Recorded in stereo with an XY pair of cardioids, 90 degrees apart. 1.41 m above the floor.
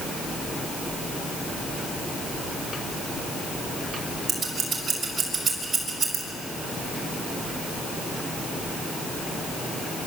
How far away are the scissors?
About 6.5 m.